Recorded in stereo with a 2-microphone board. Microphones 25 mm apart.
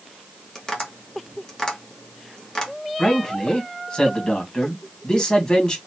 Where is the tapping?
25° left (ahead or behind), 1.5 m.